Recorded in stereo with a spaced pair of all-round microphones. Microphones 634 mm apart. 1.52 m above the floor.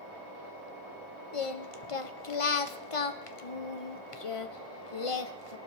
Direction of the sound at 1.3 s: 55° left (ahead or behind).